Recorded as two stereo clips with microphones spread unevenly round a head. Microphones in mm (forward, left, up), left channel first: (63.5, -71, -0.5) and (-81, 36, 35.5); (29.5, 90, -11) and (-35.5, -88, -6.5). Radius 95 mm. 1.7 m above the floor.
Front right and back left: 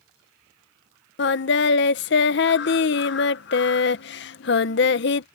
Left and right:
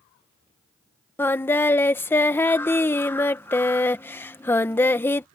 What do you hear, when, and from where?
1.2 s singing: 5° right